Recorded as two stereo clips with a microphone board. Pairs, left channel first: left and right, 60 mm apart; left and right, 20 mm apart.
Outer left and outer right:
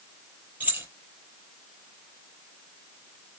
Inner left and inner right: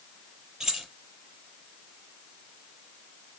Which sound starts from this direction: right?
Keys jangling, at 0.6 s.